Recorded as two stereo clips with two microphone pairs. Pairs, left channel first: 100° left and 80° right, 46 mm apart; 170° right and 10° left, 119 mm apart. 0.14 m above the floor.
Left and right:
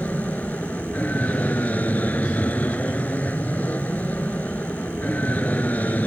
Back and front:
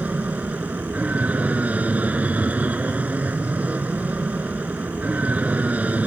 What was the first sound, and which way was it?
An aircraft, 85° left.